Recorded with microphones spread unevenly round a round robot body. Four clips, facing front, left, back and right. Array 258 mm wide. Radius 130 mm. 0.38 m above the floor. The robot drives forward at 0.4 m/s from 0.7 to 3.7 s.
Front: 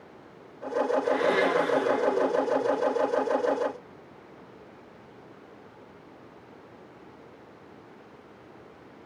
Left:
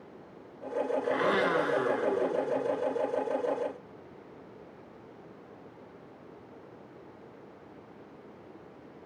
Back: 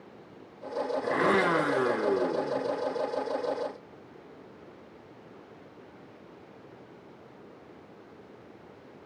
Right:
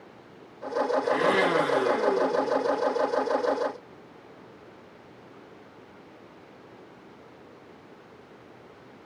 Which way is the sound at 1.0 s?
170° right.